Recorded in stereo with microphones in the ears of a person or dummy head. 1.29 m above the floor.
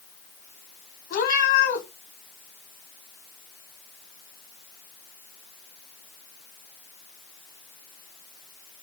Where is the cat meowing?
45° left (ahead or behind), 1.4 m.